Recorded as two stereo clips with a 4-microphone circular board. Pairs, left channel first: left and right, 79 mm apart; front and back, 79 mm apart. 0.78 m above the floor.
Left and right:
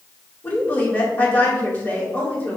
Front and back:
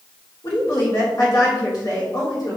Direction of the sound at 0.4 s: 30° left.